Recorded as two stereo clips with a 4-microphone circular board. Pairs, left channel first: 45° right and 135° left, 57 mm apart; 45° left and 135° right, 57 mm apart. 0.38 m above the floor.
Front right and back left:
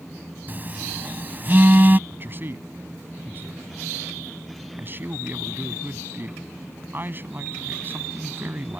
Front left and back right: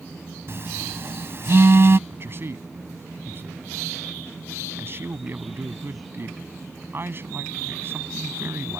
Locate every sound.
0.5 s a phone buzzing: 170° right
2.1 s a man speaking: 175° right